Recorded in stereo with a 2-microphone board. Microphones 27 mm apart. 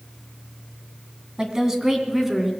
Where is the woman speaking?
30° right (ahead or behind), 2.0 m; by 2.5 s 10° right (ahead or behind), 2.5 m.